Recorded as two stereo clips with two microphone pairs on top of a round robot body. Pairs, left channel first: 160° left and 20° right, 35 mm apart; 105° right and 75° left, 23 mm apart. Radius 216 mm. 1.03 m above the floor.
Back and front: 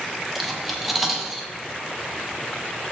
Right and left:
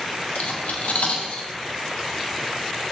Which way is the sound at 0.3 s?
105° right.